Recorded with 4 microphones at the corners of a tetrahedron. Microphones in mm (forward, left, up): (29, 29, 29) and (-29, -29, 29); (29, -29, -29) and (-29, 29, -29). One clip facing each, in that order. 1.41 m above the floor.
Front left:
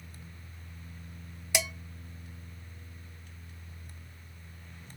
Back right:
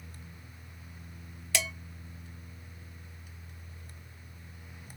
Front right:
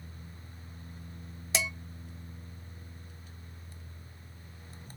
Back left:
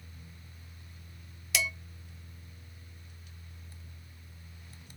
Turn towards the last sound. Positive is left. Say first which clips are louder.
# front left 1 dB, even
turn(degrees=-15)